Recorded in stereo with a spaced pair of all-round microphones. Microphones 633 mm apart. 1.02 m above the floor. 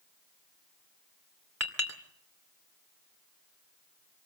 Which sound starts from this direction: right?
A clink, at 1.6 s.